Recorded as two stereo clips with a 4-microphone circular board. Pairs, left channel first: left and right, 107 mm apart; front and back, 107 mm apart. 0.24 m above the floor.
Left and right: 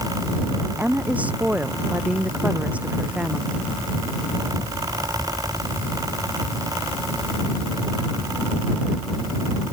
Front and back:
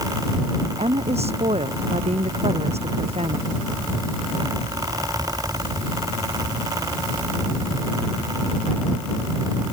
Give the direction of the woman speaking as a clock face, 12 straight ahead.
6 o'clock.